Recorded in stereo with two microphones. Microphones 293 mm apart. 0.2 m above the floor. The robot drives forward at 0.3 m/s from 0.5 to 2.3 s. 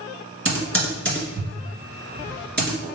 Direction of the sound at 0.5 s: 45° right (ahead or behind).